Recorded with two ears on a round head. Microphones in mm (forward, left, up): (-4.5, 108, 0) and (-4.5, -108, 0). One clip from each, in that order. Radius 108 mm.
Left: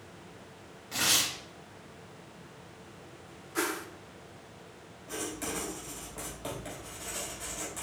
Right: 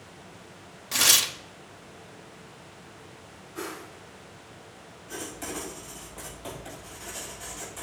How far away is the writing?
About 3 m.